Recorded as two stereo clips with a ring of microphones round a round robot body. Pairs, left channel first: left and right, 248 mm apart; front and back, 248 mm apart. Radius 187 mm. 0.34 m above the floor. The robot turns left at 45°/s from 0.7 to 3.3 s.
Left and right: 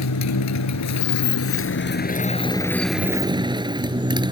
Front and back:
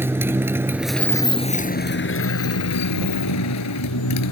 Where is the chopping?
No chopping in this recording.